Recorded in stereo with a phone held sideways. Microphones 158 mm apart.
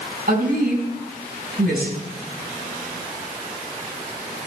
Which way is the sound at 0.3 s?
80° right.